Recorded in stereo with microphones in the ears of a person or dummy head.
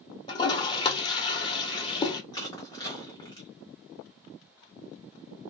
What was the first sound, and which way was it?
A toilet flushing, 30° left (ahead or behind).